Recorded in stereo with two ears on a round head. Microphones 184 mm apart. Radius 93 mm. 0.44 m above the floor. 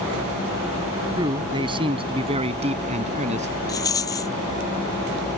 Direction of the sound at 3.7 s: 15° left (ahead or behind).